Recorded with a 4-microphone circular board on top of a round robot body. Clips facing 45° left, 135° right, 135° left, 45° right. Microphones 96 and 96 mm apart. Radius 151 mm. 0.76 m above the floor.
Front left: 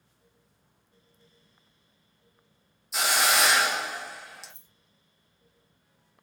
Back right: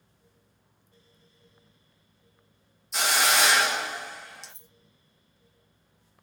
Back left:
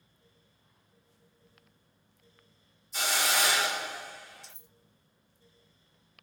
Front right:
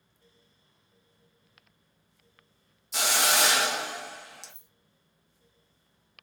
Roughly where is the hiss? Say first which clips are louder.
Even, front right 3 dB; ahead right.